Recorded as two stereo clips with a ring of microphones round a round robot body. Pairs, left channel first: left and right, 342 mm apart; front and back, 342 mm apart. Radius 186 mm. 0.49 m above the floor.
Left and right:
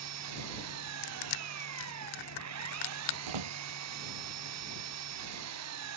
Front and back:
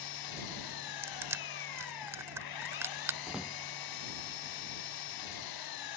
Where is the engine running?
40° right.